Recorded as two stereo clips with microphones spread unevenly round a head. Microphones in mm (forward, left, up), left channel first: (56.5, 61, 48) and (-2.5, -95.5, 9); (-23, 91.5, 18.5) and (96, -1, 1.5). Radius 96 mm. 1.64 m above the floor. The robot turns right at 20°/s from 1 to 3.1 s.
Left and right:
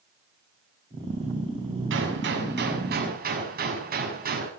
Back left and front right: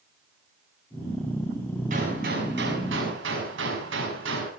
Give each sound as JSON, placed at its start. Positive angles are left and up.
{"t": 1.9, "sound": "a gunshot", "azimuth_deg": -95, "distance_m": 6.5}